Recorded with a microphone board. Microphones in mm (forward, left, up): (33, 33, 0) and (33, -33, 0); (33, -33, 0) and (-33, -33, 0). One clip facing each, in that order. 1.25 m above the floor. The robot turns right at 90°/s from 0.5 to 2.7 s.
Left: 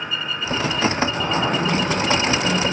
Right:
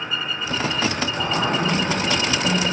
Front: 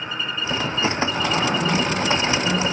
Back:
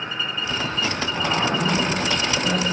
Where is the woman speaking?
65° left, 4.5 m; by 2.6 s 160° right, 4.5 m.